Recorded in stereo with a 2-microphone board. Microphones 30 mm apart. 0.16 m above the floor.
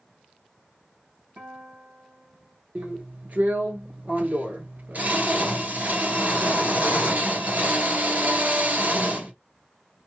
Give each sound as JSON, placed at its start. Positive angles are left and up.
{"t": 1.4, "sound": "a guitar", "side_deg": -80, "distance_m": 2.5}
{"t": 2.8, "sound": "a drill", "side_deg": -60, "distance_m": 1.6}